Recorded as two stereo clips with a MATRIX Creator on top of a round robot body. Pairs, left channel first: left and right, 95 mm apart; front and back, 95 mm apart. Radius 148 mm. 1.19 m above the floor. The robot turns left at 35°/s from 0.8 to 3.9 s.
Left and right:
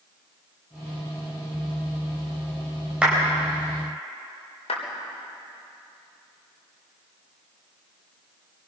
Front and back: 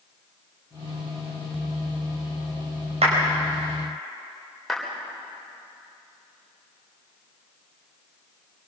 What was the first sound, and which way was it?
A clap, 170° right.